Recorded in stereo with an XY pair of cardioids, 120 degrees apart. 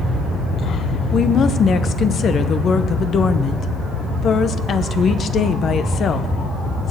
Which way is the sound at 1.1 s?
45° left.